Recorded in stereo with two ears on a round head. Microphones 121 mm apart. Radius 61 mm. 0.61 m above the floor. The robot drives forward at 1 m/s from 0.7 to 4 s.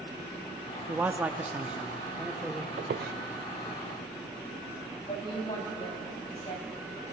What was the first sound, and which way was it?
A man speaking, 10° right (ahead or behind).